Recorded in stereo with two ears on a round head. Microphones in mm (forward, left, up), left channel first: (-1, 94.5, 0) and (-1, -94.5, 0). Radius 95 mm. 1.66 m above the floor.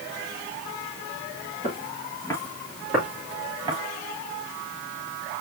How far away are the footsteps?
About 1.8 m.